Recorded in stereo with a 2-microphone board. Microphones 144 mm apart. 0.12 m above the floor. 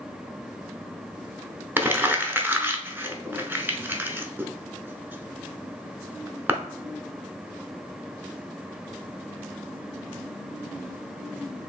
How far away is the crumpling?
About 0.7 m.